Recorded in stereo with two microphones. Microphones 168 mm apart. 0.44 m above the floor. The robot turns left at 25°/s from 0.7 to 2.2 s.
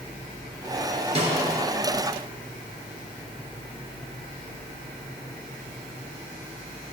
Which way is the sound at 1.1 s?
40° right (ahead or behind).